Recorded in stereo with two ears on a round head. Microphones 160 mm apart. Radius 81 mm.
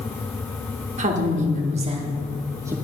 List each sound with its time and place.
1.0 s a woman speaking: 45° right (ahead or behind), 1.5 m; by 2.8 s 15° right (ahead or behind), 1.0 m